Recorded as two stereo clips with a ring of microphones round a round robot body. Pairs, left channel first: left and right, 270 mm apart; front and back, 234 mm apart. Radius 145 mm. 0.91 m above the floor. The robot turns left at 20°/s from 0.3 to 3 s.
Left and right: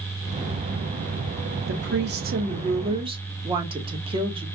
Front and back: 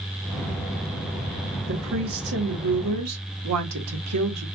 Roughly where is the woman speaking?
Behind right.